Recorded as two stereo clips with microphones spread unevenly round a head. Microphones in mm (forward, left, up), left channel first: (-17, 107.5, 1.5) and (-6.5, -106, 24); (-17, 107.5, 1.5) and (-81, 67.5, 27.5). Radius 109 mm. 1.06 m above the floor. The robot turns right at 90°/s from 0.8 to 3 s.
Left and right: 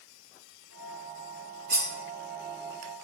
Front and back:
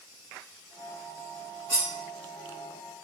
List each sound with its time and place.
1.7 s cutlery clinking: 115° right, 1.7 m; by 1.9 s 100° right, 1.7 m